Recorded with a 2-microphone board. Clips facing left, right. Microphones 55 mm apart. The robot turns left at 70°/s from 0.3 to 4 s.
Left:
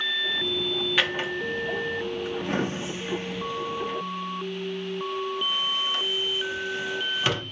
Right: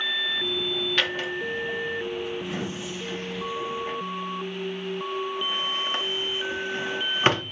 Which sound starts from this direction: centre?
A drawer, at 1.0 s.